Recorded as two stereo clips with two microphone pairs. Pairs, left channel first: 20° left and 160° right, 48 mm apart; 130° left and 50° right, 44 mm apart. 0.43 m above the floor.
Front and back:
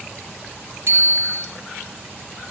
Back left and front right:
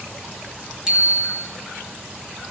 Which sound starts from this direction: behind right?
A bicycle bell, at 0.9 s.